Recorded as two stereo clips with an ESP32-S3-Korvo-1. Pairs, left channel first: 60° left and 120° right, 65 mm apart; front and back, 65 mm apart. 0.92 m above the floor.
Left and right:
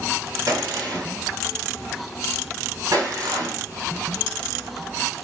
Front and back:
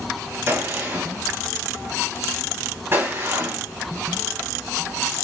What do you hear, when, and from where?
0.5 s a gunshot: 130° right, 3 m